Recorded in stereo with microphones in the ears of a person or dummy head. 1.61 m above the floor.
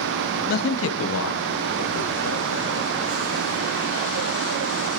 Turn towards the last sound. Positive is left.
turn(degrees=85)